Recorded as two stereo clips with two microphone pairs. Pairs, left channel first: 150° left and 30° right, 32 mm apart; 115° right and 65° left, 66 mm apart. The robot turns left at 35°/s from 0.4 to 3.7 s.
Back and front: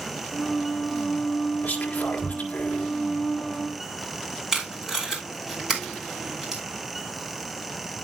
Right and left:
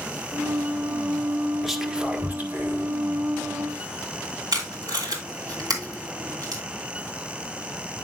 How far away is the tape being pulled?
About 3 m.